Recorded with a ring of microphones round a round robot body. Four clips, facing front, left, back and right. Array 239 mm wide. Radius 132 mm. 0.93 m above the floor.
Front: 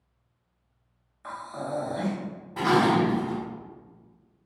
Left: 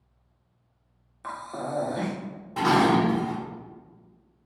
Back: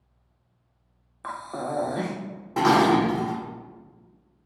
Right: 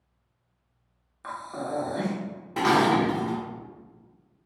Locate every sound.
1.2 s breathing: 165° left, 0.6 m
2.6 s dishes clattering: 165° right, 0.8 m